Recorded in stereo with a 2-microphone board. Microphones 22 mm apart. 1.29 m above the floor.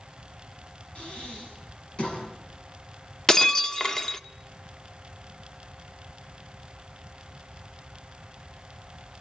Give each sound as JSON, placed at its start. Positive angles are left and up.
{"t": 0.9, "sound": "breathing", "side_deg": 50, "distance_m": 7.0}
{"t": 3.3, "sound": "breaking glass", "side_deg": 25, "distance_m": 1.0}